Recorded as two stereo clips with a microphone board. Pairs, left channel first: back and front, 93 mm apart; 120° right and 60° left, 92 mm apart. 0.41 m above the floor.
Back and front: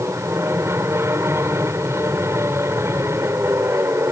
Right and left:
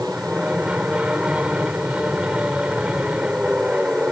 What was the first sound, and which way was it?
An aircraft, 5° right.